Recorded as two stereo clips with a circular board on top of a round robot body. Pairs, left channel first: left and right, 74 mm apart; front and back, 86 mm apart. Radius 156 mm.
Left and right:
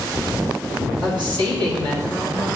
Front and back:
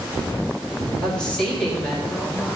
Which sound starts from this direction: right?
A woman speaking, at 1.0 s.